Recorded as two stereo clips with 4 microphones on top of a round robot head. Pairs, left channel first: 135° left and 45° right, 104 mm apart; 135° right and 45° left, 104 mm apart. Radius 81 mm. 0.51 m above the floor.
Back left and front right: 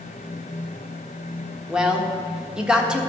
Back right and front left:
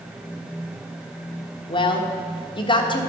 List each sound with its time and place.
1.7 s a woman speaking: 125° right, 1.5 m